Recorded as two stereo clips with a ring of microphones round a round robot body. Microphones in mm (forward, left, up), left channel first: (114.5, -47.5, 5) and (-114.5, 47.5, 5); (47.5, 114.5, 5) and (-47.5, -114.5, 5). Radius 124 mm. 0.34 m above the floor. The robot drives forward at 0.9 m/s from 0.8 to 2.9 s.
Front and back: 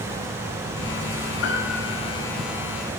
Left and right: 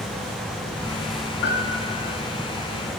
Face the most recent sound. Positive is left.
turn(degrees=30)